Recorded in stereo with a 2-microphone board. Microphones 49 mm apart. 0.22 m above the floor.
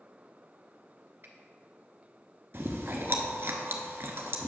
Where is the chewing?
55° right (ahead or behind), 0.9 m.